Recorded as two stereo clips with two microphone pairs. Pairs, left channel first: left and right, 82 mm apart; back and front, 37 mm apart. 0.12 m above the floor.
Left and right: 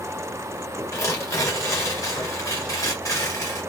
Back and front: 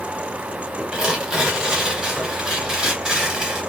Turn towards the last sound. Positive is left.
turn(degrees=65)